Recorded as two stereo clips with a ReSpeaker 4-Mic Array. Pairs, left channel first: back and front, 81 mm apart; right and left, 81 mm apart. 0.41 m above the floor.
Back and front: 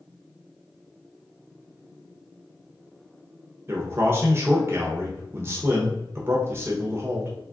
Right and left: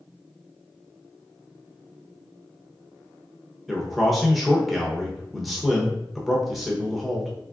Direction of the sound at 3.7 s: 5° right.